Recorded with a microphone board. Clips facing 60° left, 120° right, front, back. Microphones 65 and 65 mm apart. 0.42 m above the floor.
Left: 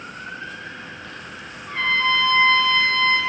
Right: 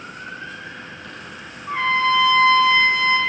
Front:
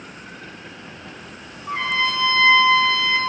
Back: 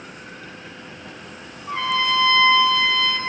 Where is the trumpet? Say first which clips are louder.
Right 2 dB, back 1 dB; 50° right, 1.4 m.